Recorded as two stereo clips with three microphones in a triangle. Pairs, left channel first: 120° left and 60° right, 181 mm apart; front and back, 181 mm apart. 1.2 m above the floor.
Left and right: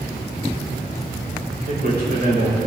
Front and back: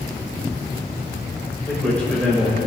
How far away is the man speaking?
About 6 m.